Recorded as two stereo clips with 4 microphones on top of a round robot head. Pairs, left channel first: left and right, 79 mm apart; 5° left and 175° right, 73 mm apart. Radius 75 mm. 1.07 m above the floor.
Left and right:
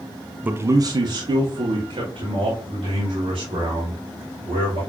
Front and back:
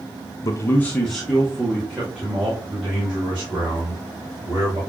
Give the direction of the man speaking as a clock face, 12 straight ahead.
1 o'clock.